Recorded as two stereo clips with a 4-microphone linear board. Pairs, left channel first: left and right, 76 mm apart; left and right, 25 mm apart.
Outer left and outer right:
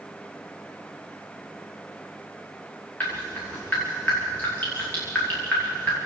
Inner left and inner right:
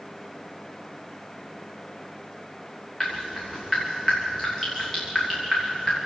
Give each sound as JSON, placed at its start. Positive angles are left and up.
{"t": 3.0, "sound": "dripping", "side_deg": 25, "distance_m": 7.0}